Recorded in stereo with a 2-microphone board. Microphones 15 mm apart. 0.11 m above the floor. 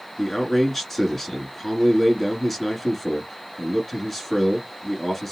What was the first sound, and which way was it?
A man speaking, 20° left (ahead or behind).